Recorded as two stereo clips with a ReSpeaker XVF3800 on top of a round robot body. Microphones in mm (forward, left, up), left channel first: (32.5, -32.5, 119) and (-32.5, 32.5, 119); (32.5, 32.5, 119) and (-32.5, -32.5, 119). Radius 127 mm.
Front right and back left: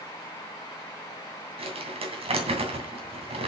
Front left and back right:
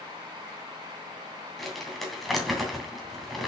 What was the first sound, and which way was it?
Crumpling, 135° left.